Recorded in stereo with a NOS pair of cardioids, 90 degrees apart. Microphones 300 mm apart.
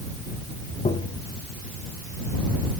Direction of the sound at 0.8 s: 25° left.